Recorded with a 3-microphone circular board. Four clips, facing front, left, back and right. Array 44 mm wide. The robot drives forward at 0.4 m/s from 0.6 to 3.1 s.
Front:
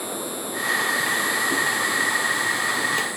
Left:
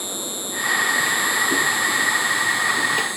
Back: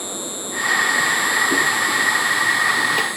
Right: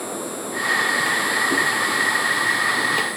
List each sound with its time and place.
0.0 s an insect: 110° left; by 3.2 s 125° left